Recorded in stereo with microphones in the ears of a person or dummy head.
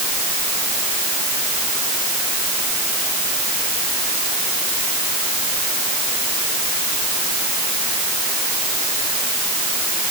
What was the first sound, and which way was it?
Only background noise.